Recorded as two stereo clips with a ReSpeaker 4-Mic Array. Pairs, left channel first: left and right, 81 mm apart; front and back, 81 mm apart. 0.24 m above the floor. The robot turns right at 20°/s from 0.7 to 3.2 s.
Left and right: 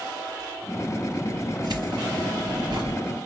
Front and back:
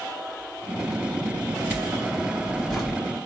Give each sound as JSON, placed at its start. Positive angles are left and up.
{"t": 1.6, "sound": "keys jangling", "azimuth_deg": -110, "distance_m": 2.0}